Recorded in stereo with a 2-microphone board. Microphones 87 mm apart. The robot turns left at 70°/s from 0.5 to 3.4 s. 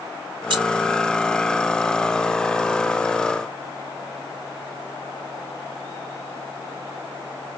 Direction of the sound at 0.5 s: 55° right (ahead or behind).